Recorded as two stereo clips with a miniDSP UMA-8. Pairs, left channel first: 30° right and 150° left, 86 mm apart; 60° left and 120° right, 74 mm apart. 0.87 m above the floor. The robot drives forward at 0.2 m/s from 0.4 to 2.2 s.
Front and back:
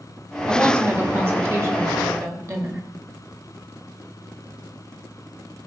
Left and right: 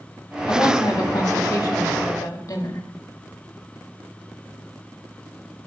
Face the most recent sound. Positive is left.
turn(degrees=95)